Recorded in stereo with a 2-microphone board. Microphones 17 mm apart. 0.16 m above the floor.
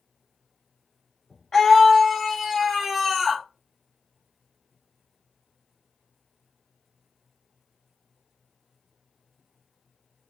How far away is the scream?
About 1.1 m.